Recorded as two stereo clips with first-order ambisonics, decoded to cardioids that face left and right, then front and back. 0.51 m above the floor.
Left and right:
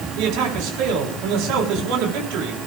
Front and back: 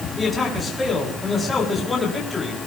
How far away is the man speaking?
About 6 m.